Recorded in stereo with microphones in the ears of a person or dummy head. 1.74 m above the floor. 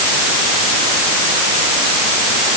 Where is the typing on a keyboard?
No typing on a keyboard in this recording.